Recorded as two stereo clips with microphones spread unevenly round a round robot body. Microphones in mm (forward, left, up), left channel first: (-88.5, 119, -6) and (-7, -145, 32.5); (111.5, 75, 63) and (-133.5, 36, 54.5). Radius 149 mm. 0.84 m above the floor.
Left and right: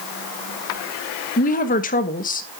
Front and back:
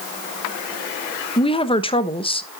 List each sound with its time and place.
1.4 s a woman speaking: 70° left, 1.0 m